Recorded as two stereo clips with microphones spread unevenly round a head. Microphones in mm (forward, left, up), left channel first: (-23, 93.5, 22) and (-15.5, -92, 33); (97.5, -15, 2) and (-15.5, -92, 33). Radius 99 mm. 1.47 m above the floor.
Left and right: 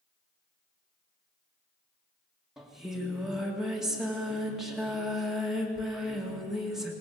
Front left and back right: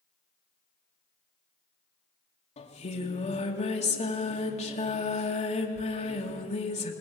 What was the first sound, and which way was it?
Singing, straight ahead.